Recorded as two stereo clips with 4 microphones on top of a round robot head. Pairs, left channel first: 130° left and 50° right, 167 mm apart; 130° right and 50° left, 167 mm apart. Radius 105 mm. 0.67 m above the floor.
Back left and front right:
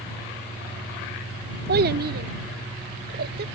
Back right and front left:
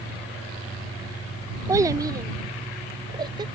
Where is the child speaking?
25° right; by 3.5 s 20° right.